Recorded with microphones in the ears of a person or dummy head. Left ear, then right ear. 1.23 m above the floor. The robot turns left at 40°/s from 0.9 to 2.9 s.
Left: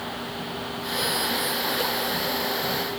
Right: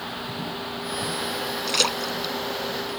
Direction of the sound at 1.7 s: 70° right (ahead or behind).